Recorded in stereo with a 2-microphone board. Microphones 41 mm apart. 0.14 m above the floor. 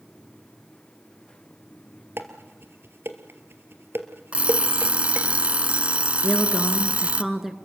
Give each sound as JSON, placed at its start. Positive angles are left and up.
{"t": 2.2, "sound": "dishes clattering", "side_deg": -60, "distance_m": 2.0}
{"t": 4.3, "sound": "an alarm clock", "side_deg": -30, "distance_m": 0.7}
{"t": 6.2, "sound": "a woman speaking", "side_deg": -5, "distance_m": 1.8}